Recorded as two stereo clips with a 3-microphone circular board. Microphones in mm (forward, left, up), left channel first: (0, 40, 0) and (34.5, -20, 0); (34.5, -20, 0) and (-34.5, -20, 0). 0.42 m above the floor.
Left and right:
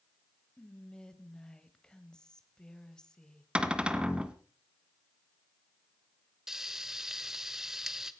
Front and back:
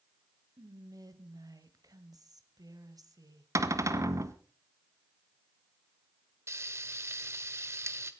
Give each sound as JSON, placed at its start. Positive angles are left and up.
{"t": 0.6, "sound": "whispering", "azimuth_deg": -165, "distance_m": 1.8}
{"t": 3.5, "sound": "a cupboard door", "azimuth_deg": -135, "distance_m": 1.2}
{"t": 6.5, "sound": "frying", "azimuth_deg": -145, "distance_m": 1.2}